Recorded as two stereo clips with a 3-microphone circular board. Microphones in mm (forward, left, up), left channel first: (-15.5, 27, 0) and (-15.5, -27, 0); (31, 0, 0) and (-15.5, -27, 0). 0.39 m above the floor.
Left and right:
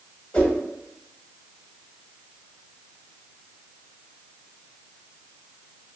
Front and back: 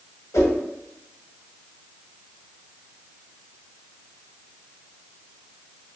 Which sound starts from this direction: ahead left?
A whoosh, at 0.3 s.